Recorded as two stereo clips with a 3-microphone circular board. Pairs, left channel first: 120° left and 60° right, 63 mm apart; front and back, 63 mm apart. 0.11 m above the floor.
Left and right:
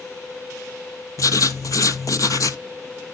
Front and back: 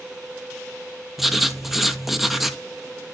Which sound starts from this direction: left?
Writing, at 1.2 s.